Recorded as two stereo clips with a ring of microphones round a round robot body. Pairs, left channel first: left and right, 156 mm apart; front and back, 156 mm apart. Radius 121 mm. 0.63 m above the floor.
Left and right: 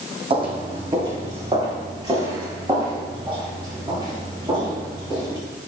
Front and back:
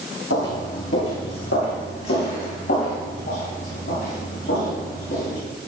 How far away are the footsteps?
About 1.7 m.